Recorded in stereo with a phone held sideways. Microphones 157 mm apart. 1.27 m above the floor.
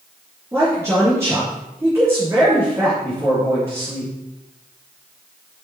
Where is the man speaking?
20° right (ahead or behind), 3 m.